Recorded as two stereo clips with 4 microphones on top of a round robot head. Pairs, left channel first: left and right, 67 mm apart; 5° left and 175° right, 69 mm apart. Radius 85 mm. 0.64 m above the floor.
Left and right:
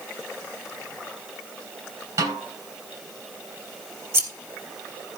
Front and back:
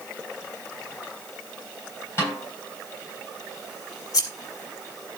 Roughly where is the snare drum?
Ahead right.